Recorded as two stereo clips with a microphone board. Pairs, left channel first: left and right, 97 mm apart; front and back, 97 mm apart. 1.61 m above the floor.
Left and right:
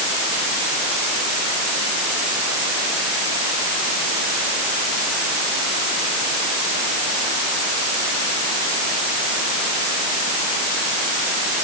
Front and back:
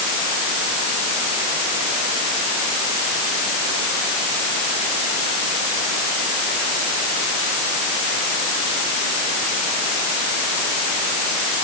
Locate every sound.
Only background noise.